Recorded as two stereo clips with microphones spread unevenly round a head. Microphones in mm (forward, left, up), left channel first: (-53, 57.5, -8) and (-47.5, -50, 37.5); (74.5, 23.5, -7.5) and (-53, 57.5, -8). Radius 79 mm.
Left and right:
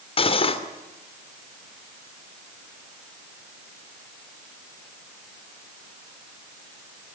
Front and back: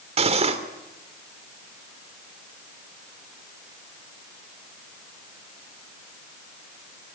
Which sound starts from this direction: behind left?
Cutlery clinking, at 0.2 s.